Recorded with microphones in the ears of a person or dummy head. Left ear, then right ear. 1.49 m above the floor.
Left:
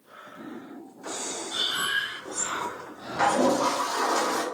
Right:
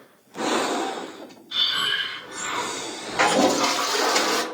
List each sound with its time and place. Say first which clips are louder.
1.5 s breathing: right 5 dB; 25° right (ahead or behind), 1.4 m
3.2 s a toilet flushing: right 3 dB; 70° right (ahead or behind), 0.5 m